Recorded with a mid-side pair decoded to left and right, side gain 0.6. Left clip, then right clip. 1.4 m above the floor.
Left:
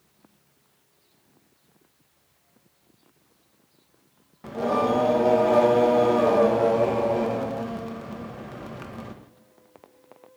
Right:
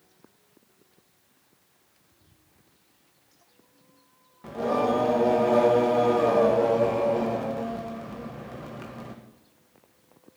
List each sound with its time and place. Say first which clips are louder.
4.4 s singing: left 1 dB; 20° left, 1.8 m